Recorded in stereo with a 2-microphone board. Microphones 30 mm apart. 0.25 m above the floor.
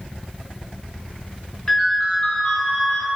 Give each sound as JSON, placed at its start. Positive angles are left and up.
{"t": 1.7, "sound": "a ringtone", "side_deg": 15, "distance_m": 1.0}